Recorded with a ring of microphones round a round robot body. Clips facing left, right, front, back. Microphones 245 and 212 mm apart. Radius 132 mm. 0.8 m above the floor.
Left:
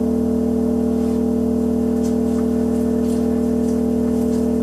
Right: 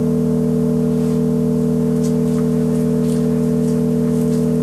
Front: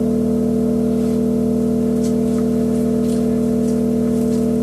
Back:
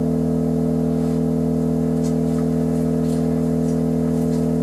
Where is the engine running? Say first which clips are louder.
Right 1 dB, front 3 dB; 45° right, 0.8 m.